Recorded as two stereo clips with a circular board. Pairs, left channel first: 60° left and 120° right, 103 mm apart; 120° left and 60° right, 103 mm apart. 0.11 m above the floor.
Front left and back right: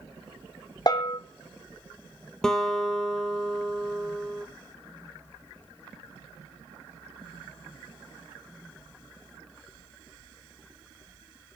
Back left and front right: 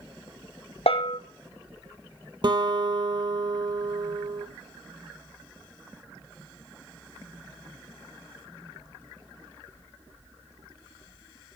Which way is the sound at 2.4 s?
25° right.